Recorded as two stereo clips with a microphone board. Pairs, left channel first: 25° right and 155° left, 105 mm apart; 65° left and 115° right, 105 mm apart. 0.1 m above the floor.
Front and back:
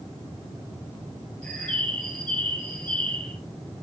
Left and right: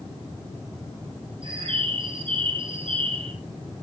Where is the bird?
100° right, 3 m.